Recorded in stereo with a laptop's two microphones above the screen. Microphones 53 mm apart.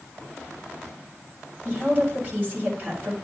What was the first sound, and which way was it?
A woman speaking, 30° right (ahead or behind).